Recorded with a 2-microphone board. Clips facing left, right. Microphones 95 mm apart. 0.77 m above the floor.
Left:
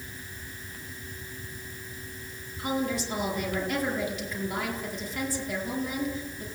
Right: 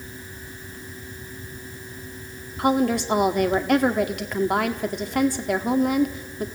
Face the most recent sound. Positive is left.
turn(degrees=-65)  # may be behind; listen again after turning